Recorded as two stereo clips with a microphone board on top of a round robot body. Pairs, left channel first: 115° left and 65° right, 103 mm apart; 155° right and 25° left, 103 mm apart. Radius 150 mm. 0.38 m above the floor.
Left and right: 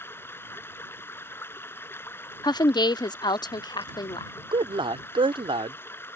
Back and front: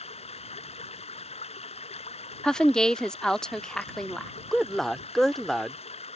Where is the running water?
175° right.